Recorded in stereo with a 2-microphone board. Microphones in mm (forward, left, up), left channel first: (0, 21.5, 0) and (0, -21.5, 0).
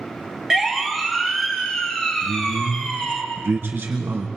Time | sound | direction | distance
0.5 | a siren | 15° right (ahead or behind) | 2 m
2.2 | a man speaking | 65° right (ahead or behind) | 3 m